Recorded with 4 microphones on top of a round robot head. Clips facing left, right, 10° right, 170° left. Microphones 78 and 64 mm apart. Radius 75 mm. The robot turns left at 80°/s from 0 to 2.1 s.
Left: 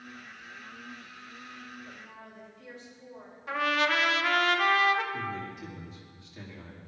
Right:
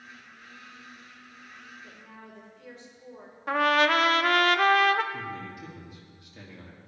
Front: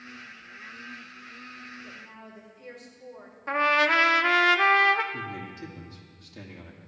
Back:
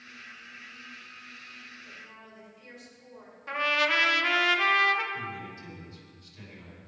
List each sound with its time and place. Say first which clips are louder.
1.8 s a woman speaking: left 1 dB, front 3 dB; 35° right, 4 m; by 3.4 s 55° right, 4 m
3.5 s a trumpet: right 5 dB, front 4 dB; 60° right, 0.6 m
5.1 s a man speaking: left 1 dB, front 1 dB; 10° right, 2.5 m